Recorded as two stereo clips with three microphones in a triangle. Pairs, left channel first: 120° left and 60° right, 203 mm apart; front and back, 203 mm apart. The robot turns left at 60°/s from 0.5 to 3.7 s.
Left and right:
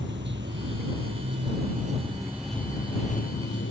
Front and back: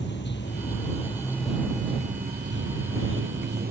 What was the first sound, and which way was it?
Running water, 30° right.